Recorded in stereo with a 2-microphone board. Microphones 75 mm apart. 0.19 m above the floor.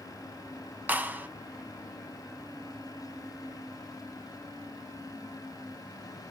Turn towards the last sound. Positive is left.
turn(degrees=-25)  # may be behind; listen again after turning